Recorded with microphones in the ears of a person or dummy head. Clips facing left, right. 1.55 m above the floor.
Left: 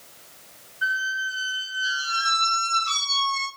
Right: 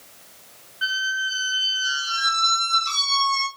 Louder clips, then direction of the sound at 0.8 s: Even; 70° right (ahead or behind).